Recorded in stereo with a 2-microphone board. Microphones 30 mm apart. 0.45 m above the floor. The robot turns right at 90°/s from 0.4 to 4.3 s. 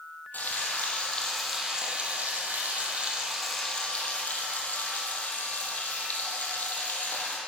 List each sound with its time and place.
0.3 s frying: 80° left, 4 m; by 7.4 s 75° left, 4 m